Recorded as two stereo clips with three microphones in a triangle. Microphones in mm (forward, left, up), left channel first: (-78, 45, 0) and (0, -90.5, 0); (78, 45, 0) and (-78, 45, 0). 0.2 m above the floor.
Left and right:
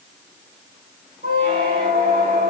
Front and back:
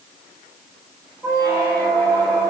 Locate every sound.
1.2 s a squeak: 80° right, 4.5 m